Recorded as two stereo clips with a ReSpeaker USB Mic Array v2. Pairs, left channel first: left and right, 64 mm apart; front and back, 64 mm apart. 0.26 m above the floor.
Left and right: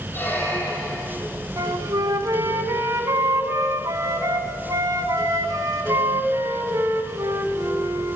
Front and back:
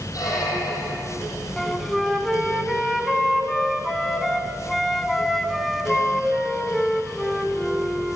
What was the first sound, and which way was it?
A squeak, 30° left.